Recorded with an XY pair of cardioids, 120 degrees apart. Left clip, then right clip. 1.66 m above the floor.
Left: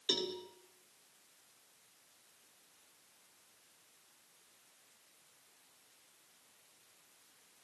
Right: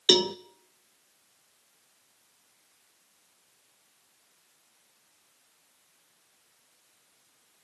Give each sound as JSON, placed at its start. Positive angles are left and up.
{"t": 0.1, "sound": "a cowbell", "azimuth_deg": -70, "distance_m": 1.0}